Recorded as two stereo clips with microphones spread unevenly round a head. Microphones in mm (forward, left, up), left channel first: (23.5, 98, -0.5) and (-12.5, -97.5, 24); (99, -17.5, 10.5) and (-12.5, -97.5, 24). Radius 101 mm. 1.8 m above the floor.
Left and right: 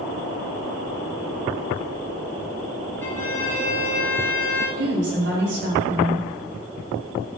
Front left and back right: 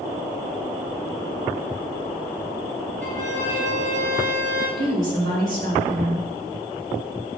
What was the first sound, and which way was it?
A violin, 160° left.